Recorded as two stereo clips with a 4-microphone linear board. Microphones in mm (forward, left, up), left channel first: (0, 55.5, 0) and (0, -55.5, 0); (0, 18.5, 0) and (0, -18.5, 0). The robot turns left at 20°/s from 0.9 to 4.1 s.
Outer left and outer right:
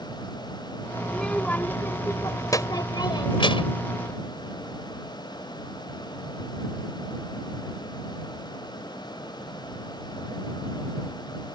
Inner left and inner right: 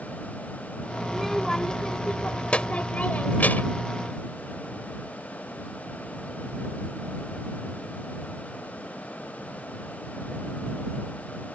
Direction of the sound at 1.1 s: 175° left.